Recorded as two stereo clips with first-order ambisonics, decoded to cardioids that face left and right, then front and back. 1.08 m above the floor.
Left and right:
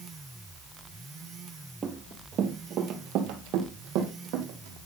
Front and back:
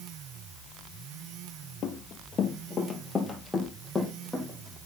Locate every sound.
1.8 s running footsteps: 35° right, 1.3 m; by 4.8 s 95° right, 2.5 m